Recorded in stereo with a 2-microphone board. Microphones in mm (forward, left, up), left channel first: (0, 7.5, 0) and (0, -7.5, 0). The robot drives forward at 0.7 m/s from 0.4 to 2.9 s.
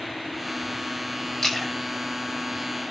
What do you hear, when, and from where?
1.4 s a splash: 30° left (ahead or behind), 6 m